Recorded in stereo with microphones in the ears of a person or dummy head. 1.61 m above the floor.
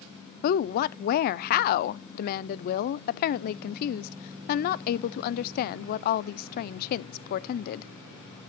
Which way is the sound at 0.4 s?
50° left (ahead or behind).